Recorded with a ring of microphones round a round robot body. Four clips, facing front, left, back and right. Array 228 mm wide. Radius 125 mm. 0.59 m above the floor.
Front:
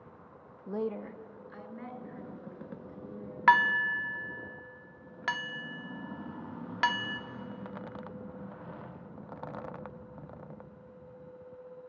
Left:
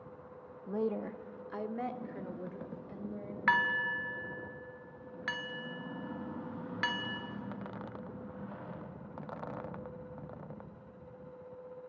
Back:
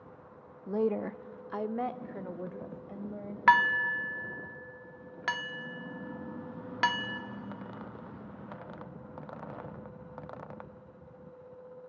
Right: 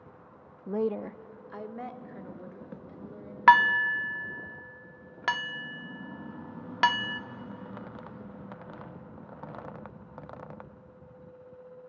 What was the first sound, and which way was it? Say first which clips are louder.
A woman speaking: right 4 dB, back 5 dB; 100° right.